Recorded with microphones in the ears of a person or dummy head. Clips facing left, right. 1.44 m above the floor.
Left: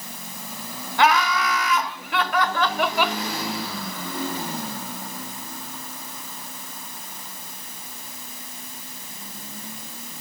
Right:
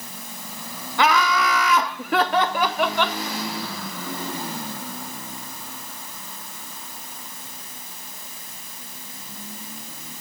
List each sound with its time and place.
1.0 s laughter: 75° right (ahead or behind), 1.0 m; by 3.2 s 10° left (ahead or behind), 0.7 m